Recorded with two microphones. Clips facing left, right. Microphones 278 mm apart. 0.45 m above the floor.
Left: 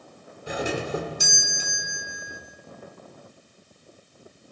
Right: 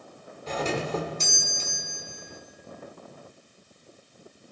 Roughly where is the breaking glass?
I don't hear breaking glass.